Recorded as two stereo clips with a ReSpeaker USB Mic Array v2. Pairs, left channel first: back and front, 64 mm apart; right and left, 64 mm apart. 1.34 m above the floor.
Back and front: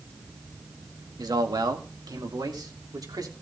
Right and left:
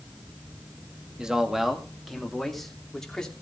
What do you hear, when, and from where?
1.2 s a man speaking: 10° left, 2.0 m; by 3.3 s 10° right, 3 m